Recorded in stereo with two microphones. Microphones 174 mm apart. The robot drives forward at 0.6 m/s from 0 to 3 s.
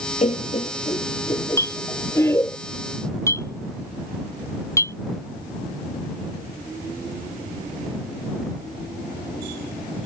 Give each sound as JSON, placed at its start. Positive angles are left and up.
{"t": 0.2, "sound": "laughter", "side_deg": 40}
{"t": 1.6, "sound": "a clink", "side_deg": 15}